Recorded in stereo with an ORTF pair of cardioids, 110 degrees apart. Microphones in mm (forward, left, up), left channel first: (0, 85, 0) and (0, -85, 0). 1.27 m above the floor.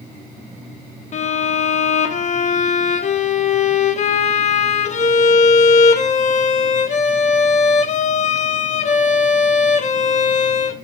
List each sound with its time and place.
1.1 s a violin: 45° left, 1.4 m